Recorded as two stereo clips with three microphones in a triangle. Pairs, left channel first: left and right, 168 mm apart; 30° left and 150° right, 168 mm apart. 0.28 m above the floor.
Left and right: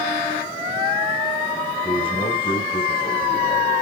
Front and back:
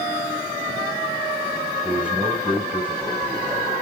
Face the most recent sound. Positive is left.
turn(degrees=130)